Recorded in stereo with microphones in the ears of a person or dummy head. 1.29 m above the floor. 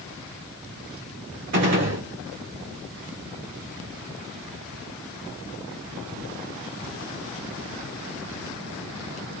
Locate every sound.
1.5 s a gunshot: 55° right (ahead or behind), 2.5 m